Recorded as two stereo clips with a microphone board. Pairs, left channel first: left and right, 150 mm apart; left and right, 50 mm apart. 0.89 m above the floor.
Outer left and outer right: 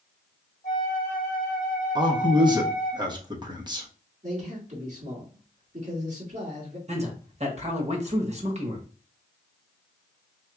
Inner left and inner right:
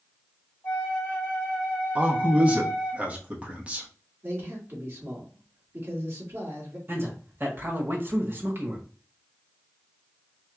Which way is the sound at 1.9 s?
25° right (ahead or behind).